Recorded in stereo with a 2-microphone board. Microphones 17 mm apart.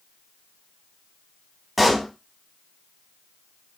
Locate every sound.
1.8 s a pop: 5° right (ahead or behind), 0.7 m